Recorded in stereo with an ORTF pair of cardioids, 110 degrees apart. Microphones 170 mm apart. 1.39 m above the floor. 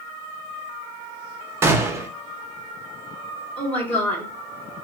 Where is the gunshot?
15° right, 0.7 m.